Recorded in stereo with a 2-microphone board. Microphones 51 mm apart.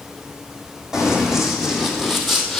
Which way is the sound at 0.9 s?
10° right (ahead or behind).